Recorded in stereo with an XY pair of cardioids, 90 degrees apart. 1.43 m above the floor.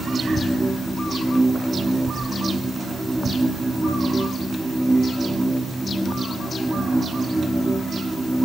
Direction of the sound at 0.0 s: 15° right.